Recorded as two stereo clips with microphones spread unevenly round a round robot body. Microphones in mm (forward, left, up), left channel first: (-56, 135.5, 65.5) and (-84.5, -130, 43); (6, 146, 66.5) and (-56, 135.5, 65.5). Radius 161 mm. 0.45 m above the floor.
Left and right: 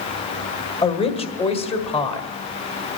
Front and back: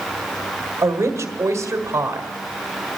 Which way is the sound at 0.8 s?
155° left.